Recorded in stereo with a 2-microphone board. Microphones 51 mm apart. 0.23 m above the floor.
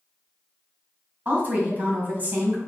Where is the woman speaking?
35° right (ahead or behind), 1.7 m.